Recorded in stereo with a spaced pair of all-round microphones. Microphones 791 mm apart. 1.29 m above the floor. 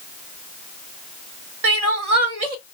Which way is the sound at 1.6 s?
50° right (ahead or behind).